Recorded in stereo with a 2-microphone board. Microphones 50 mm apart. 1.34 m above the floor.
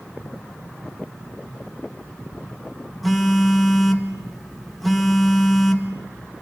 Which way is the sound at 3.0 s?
5° left (ahead or behind).